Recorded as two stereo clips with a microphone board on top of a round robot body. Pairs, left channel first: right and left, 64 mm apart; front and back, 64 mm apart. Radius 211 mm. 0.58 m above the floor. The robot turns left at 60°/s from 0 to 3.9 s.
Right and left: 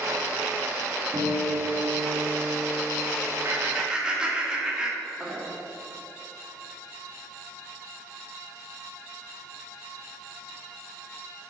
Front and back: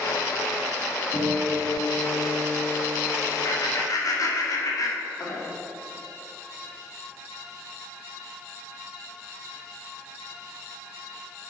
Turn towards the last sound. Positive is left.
turn(degrees=15)